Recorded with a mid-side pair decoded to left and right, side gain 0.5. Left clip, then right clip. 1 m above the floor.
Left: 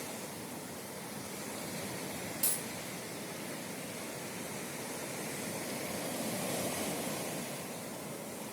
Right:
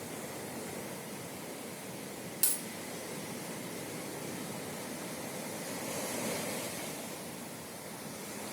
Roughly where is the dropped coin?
Ahead right.